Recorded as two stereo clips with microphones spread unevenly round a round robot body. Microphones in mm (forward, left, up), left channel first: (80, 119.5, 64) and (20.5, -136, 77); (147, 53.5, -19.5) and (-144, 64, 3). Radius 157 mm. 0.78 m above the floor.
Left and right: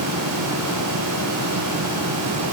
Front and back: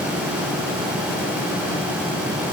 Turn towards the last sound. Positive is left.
No sound to turn to.